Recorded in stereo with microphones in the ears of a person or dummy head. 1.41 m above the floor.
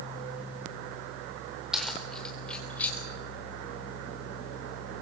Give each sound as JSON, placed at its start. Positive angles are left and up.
{"t": 1.7, "sound": "keys jangling", "side_deg": 0, "distance_m": 3.5}